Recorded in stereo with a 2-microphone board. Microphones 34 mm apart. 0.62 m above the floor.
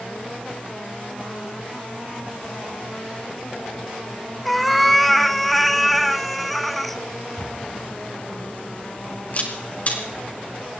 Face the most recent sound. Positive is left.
turn(degrees=45)  # may be behind; listen again after turning